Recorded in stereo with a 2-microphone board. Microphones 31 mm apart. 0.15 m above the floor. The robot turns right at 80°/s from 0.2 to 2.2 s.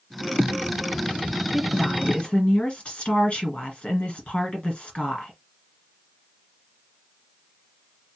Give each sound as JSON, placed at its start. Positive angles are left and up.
{"t": 1.5, "sound": "a woman speaking", "azimuth_deg": 25, "distance_m": 2.0}